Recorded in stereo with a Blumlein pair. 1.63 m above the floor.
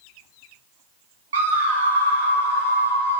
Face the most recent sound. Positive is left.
turn(degrees=-65)